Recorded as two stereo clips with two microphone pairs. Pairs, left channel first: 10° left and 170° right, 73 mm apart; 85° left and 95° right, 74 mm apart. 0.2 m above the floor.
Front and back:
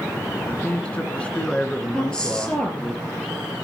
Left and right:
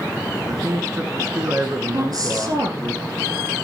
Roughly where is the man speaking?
Ahead right.